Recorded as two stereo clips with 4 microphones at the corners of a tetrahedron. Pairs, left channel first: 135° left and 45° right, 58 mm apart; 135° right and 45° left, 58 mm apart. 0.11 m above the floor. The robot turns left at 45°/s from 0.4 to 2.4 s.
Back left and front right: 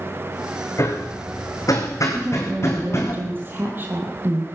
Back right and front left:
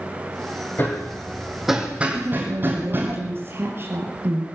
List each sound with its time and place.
0.8 s hammering: 170° left, 3.5 m; by 3.1 s 100° left, 3.5 m
2.1 s a woman speaking: 15° left, 3 m; by 4.5 s straight ahead, 3 m